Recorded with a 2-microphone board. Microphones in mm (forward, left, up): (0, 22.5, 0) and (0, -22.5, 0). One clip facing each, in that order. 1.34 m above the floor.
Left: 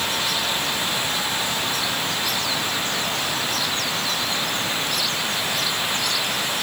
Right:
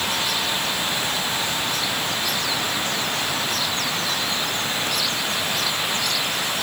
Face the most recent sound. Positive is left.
No sound to turn to.